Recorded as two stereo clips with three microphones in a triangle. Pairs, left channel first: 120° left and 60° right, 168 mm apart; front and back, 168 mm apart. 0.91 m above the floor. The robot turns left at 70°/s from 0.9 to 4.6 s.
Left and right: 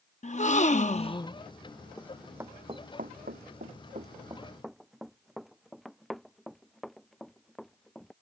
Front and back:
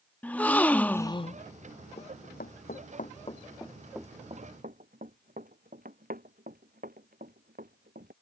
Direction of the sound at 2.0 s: 50° left.